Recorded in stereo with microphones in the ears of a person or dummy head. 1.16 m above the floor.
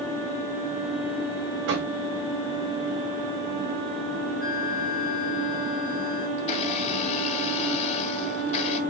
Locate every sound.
1.7 s knocking: 70° right (ahead or behind), 4.5 m
4.4 s a flute: centre (ahead or behind), 2.5 m
6.4 s a blender: 40° left (ahead or behind), 2.5 m